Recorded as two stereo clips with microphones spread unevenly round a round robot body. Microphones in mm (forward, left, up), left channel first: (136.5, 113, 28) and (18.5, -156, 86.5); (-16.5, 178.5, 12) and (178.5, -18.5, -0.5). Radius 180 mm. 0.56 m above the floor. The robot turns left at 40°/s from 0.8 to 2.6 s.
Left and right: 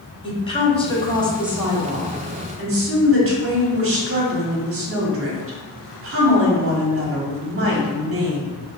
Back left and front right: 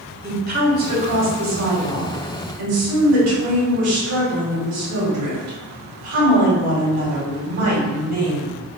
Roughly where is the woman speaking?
Ahead.